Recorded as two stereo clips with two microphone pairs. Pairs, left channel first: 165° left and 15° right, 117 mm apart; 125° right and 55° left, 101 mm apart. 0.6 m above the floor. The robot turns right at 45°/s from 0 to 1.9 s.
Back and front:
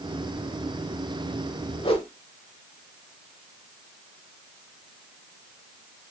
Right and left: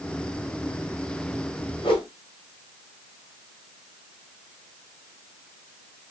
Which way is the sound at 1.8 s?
160° right.